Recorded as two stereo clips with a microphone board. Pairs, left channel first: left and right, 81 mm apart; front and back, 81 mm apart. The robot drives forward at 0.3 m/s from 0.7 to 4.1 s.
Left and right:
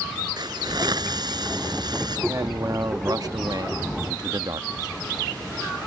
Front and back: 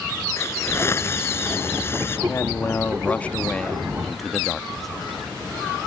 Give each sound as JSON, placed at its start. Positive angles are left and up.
{"t": 0.4, "sound": "a hiss", "azimuth_deg": -60}
{"t": 2.3, "sound": "a man speaking", "azimuth_deg": -55}